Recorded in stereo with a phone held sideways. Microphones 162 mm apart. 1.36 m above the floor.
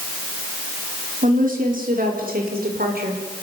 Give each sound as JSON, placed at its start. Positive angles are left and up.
{"t": 1.2, "sound": "a woman speaking", "side_deg": -55, "distance_m": 4.5}